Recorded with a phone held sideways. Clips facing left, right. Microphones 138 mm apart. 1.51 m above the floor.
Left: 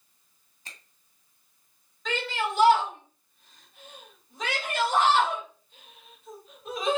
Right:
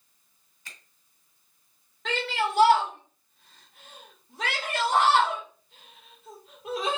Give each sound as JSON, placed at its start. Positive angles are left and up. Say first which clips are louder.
{"t": 0.7, "sound": "a finger snap", "louder": "left 1 dB", "side_deg": 30, "distance_m": 2.0}
{"t": 2.0, "sound": "a shout", "louder": "right 1 dB", "side_deg": -70, "distance_m": 1.9}